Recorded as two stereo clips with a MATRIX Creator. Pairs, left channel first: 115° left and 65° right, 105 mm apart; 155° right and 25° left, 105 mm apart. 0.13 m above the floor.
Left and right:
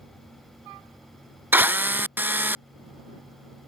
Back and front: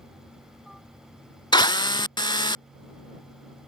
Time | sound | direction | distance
1.5 | a drill | 130° right | ?